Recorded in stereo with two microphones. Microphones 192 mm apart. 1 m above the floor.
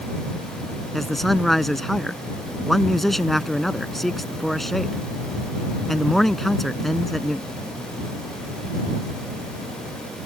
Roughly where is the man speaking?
Centre.